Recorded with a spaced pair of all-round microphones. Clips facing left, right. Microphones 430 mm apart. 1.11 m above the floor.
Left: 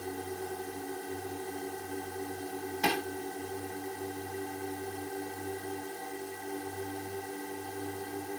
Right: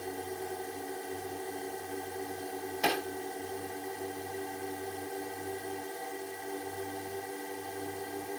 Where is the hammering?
20° left (ahead or behind).